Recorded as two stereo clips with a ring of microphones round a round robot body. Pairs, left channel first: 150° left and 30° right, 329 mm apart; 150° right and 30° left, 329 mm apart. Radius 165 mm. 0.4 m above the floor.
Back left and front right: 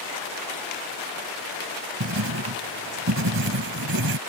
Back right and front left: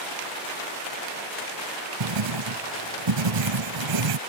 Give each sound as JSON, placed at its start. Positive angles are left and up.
{"t": 2.0, "sound": "writing", "azimuth_deg": 20}